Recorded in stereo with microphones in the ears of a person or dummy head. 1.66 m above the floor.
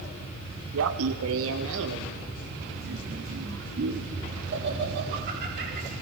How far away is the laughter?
About 1.2 m.